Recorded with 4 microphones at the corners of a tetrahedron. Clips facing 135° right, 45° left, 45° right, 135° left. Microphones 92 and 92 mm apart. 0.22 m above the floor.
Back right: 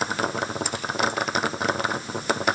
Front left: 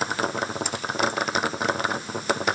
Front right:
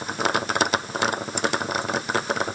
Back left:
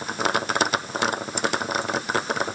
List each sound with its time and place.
Only background noise.